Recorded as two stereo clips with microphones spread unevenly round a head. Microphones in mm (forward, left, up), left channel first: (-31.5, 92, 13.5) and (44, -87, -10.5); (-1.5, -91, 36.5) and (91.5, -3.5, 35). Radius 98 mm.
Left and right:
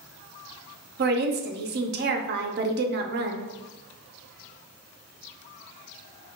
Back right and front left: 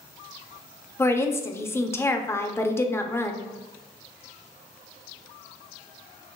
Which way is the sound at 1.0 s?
65° right.